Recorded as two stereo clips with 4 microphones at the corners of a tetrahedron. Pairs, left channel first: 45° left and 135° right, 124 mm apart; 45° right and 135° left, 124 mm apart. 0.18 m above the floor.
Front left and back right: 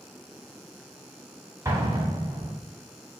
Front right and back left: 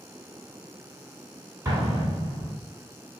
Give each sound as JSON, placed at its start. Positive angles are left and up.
{"t": 1.6, "sound": "an explosion", "azimuth_deg": 180, "distance_m": 1.1}